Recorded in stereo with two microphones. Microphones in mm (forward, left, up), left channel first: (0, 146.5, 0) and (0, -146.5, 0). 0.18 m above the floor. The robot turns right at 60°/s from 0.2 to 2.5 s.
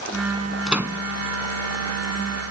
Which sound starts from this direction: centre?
A microwave, at 0.7 s.